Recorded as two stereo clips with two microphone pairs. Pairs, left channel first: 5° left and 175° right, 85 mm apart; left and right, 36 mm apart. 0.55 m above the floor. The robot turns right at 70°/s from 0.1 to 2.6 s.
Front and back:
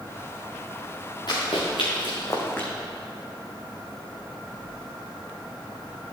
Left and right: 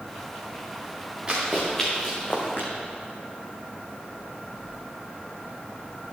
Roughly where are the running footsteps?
Ahead right.